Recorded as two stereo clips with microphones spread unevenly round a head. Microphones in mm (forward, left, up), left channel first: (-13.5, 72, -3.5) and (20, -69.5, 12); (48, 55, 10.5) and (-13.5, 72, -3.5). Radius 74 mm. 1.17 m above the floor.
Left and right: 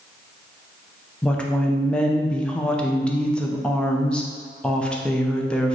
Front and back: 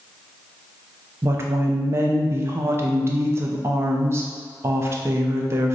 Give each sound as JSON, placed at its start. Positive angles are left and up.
{"t": 1.2, "sound": "a woman speaking", "azimuth_deg": 180, "distance_m": 0.5}